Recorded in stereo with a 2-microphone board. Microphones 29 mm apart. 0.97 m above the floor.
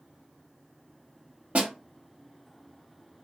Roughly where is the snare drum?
Right.